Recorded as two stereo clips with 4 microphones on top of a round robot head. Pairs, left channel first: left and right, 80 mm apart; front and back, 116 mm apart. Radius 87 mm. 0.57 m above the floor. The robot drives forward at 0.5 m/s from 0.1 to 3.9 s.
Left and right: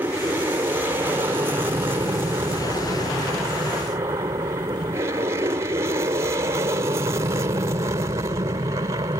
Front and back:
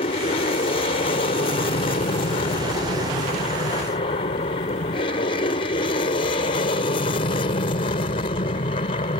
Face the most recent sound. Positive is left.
turn(degrees=-40)